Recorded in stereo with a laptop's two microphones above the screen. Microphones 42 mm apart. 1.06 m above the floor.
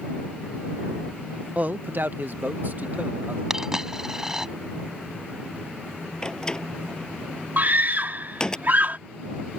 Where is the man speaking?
35° right (ahead or behind); by 3.4 s 45° right (ahead or behind).